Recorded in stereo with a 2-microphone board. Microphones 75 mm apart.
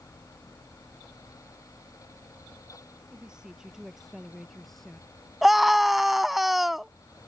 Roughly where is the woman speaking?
Centre.